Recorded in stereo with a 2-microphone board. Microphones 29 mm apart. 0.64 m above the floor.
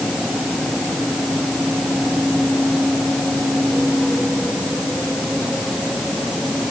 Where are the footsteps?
No footsteps in this recording.